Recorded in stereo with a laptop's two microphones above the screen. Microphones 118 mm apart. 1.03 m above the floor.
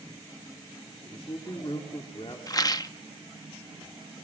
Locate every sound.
1.1 s a man speaking: 45° left (ahead or behind), 2.5 m
2.5 s a rattle: 35° left (ahead or behind), 0.7 m